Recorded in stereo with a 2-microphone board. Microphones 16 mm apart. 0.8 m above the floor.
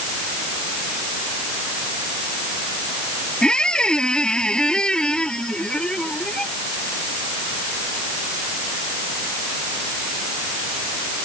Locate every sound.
3.4 s a squeak: 65° left (ahead or behind)